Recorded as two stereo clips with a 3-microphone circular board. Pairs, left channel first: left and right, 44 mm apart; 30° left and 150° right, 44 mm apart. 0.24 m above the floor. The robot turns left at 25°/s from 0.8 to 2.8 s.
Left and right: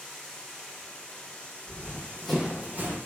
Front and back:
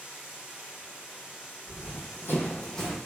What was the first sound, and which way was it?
Running water, 150° left.